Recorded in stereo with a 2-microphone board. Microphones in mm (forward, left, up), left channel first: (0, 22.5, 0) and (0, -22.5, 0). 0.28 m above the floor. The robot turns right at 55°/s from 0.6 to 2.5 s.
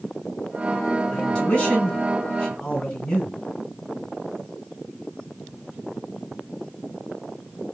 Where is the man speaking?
20° left (ahead or behind), 1.5 m; by 3.3 s 15° left (ahead or behind), 1.5 m.